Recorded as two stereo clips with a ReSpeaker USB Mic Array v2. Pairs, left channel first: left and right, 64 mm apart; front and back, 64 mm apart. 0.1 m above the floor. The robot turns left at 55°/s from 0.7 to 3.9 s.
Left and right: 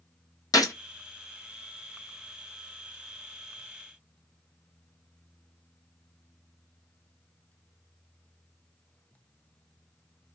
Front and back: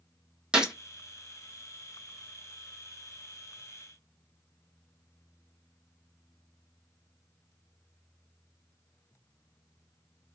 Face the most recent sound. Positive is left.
turn(degrees=-75)